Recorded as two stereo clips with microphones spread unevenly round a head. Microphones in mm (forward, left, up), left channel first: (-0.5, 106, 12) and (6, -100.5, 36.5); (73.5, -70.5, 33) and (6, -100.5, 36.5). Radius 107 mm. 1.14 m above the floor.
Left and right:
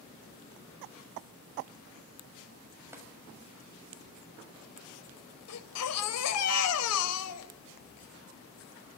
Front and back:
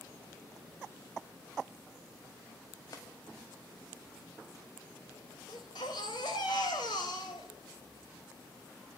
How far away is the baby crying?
About 3.5 m.